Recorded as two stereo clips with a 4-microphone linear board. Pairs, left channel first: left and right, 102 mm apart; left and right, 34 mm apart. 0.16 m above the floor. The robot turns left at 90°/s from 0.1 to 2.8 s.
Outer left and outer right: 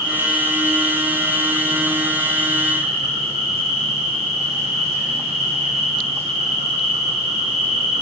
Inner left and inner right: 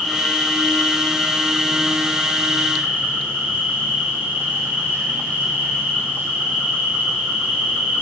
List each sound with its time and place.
0.0 s an insect: 150° left, 2.5 m; by 8.0 s 95° right, 2.5 m